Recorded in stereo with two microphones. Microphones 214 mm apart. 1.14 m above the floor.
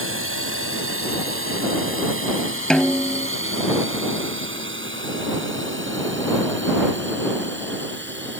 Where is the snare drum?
5° left (ahead or behind).